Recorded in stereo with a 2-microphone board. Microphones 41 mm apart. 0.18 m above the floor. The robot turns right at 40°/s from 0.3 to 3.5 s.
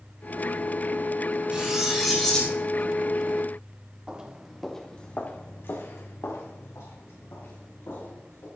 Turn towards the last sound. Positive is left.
turn(degrees=80)